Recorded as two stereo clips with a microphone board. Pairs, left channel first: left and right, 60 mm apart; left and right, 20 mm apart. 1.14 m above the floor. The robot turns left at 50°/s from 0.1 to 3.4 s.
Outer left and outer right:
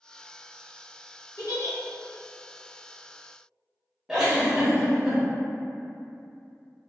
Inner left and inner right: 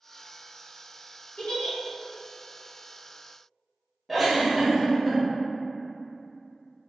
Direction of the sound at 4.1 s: 10° right (ahead or behind).